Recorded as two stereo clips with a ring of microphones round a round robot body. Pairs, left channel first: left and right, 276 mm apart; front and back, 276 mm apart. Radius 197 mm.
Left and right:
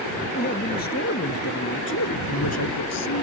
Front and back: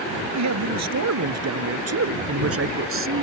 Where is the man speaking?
160° left; by 3.2 s 140° left.